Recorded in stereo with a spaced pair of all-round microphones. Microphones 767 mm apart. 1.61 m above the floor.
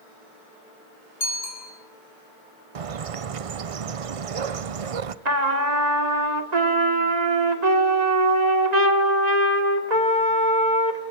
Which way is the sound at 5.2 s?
60° right (ahead or behind).